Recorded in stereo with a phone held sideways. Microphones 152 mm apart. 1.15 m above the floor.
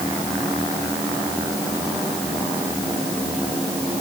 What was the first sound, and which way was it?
Only background noise.